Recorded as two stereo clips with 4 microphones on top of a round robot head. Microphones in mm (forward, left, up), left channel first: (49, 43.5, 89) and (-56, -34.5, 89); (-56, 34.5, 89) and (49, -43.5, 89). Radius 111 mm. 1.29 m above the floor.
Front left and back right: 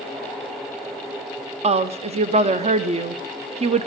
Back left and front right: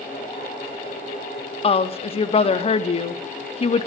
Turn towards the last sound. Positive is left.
turn(degrees=-175)